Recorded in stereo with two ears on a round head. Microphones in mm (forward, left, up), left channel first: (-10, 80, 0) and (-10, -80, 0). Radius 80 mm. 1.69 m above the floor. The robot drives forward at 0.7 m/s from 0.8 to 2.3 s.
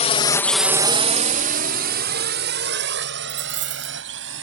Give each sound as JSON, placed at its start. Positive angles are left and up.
{"t": 0.0, "sound": "a drone", "side_deg": 40}
{"t": 3.3, "sound": "a dropped coin", "side_deg": -45}